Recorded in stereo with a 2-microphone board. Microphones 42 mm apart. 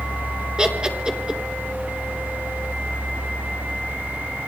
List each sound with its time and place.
0.6 s laughter: 20° right (ahead or behind), 3.5 m